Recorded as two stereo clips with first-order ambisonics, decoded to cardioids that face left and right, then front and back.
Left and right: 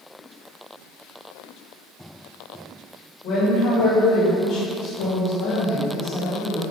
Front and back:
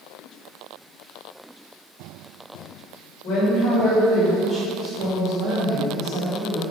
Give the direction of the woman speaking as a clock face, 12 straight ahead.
11 o'clock.